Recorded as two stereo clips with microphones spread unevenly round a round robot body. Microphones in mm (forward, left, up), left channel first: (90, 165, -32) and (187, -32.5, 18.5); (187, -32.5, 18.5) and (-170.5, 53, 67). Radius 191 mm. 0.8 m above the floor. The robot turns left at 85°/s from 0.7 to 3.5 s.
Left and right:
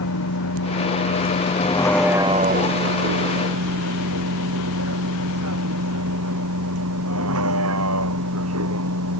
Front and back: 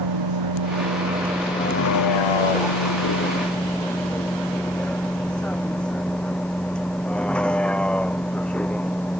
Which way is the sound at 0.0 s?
135° left.